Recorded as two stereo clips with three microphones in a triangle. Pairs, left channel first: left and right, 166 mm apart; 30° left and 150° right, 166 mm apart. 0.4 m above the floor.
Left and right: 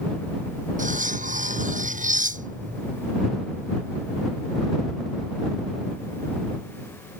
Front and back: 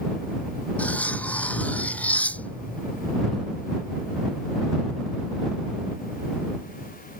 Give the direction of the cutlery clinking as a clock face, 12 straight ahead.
2 o'clock.